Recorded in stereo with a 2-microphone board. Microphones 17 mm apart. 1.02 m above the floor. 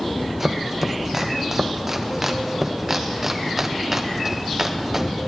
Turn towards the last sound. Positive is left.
turn(degrees=-20)  # may be behind; listen again after turning